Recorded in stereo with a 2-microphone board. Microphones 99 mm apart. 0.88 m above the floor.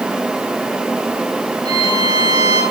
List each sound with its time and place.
1.6 s a violin: 40° right (ahead or behind), 2.5 m